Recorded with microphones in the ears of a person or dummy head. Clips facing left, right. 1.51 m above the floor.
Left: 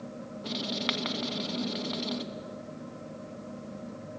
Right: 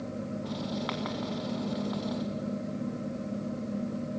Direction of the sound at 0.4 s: 45° left (ahead or behind).